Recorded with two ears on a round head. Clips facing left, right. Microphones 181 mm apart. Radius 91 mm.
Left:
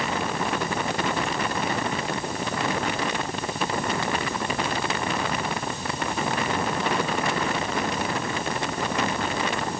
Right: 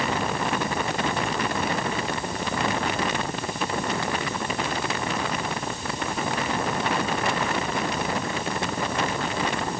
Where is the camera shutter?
No camera shutter in this recording.